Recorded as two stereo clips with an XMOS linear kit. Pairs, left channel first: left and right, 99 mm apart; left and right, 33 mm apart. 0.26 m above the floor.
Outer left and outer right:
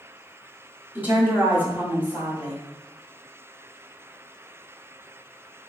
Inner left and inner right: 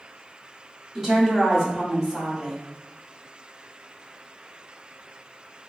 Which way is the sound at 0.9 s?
15° right (ahead or behind).